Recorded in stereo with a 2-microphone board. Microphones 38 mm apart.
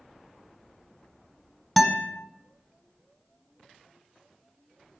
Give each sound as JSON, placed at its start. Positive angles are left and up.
{"t": 1.8, "sound": "a guitar", "side_deg": 5, "distance_m": 1.1}